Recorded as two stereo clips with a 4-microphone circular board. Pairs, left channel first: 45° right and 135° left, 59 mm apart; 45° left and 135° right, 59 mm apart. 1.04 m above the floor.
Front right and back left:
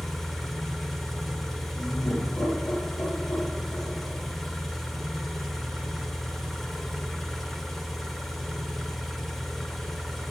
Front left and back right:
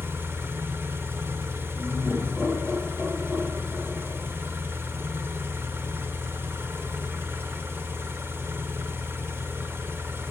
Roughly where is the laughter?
Ahead right.